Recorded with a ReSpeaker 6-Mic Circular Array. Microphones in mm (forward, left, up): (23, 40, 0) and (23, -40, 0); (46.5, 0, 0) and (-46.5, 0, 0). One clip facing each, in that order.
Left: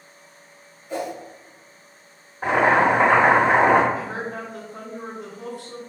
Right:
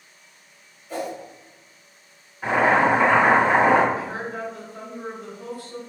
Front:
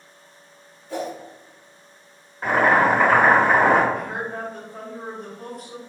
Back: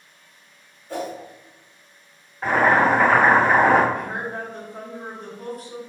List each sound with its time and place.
0.9 s a whoosh: 160° left, 1.7 m
2.4 s boiling: 85° left, 1.5 m
3.9 s a woman speaking: 90° left, 1.0 m